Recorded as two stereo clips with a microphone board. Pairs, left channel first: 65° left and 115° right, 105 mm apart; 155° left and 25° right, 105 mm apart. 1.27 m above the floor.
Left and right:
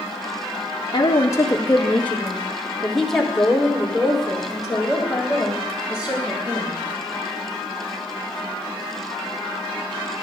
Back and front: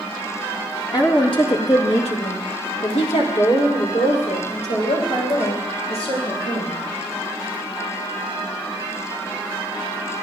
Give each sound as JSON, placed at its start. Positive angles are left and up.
{"t": 0.9, "sound": "a woman speaking", "azimuth_deg": 110, "distance_m": 1.7}